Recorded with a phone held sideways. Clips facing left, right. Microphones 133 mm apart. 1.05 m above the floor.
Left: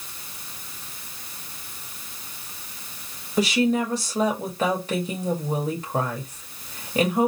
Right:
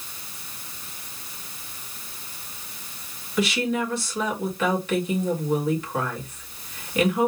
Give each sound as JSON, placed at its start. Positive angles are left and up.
{"t": 3.4, "sound": "a woman speaking", "side_deg": 35, "distance_m": 1.8}